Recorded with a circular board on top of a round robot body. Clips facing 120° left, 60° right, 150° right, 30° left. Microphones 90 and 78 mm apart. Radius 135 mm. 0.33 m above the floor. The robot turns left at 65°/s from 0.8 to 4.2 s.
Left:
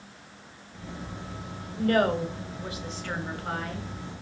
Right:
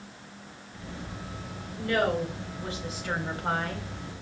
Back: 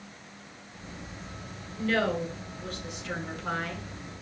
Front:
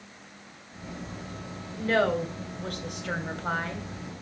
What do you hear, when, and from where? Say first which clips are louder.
1.8 s a woman speaking: left 3 dB, front 3 dB; 95° left, 3 m; by 3.9 s 40° right, 3 m